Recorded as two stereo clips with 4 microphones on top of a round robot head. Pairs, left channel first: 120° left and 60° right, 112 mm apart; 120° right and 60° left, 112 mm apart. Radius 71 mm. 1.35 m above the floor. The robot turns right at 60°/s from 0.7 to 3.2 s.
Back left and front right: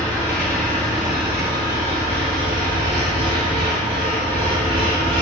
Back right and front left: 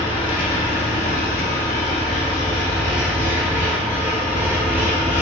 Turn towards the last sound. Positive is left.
turn(degrees=-15)